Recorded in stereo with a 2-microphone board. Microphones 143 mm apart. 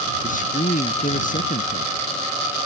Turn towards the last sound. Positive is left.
turn(degrees=80)